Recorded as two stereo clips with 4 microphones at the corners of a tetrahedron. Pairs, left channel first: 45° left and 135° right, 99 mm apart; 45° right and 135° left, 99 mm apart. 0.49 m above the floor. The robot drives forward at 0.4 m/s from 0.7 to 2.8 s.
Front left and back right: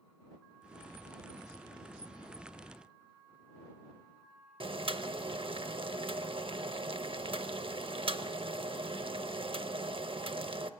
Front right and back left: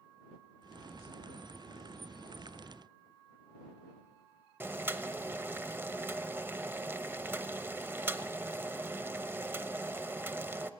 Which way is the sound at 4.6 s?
155° right.